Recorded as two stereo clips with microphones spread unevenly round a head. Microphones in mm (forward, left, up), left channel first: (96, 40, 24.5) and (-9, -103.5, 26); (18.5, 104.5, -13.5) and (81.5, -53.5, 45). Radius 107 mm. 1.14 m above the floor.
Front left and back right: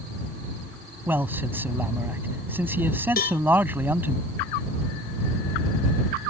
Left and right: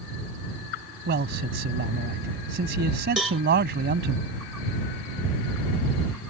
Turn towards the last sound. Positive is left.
turn(degrees=20)